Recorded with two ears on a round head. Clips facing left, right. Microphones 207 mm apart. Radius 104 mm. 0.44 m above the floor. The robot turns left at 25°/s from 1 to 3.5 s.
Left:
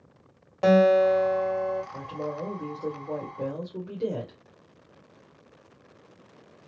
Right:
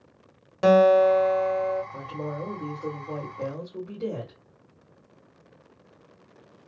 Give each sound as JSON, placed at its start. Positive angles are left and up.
{"t": 0.6, "sound": "a guitar", "side_deg": -20, "distance_m": 1.1}
{"t": 1.9, "sound": "a woman speaking", "azimuth_deg": -170, "distance_m": 1.5}